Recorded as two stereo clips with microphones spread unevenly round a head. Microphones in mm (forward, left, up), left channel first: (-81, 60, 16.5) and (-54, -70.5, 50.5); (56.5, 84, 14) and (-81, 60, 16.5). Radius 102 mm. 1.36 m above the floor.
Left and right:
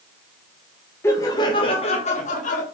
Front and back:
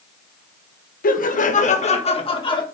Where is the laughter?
25° left, 1.6 m; by 2.6 s 65° left, 2 m.